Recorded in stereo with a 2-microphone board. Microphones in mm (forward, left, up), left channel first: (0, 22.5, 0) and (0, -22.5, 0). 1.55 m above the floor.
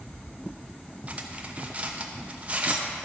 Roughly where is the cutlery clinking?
Right.